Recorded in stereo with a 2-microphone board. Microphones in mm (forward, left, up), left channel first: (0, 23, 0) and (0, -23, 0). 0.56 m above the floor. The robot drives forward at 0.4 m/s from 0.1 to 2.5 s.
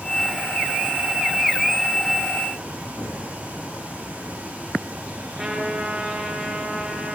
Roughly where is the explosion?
Left.